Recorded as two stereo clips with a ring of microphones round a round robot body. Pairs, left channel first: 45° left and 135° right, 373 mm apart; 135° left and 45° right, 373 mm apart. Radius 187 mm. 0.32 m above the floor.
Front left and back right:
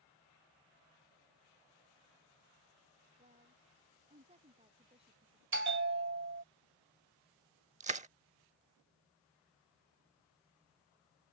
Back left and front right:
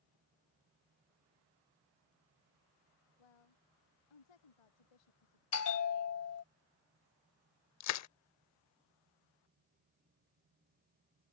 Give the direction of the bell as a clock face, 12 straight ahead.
6 o'clock.